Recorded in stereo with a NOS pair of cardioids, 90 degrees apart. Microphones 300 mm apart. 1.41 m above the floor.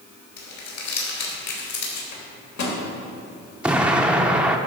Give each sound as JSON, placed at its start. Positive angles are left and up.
{"t": 0.4, "sound": "crumpling", "azimuth_deg": 65, "distance_m": 3.0}
{"t": 2.1, "sound": "a microwave", "azimuth_deg": 60, "distance_m": 2.5}
{"t": 3.6, "sound": "an explosion", "azimuth_deg": -5, "distance_m": 0.7}